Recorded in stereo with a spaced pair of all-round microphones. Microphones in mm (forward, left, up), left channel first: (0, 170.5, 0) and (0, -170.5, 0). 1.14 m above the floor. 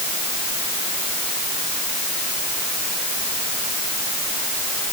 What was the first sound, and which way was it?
Only background noise.